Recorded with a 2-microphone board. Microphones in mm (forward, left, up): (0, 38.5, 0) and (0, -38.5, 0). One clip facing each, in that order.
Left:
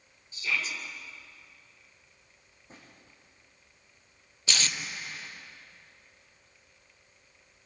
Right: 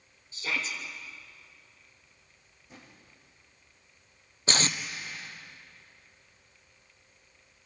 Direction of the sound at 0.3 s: 35° right (ahead or behind).